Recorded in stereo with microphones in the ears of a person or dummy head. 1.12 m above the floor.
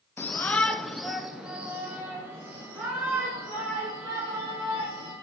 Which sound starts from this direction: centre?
A shout, at 0.2 s.